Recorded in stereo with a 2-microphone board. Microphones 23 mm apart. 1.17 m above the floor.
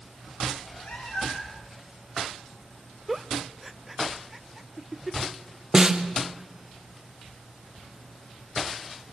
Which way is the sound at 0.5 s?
65° left (ahead or behind).